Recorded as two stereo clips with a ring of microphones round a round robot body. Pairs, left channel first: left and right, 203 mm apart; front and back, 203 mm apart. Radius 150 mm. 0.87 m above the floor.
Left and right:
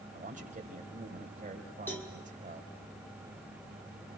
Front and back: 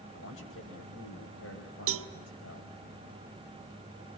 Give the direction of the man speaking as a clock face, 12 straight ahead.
1 o'clock.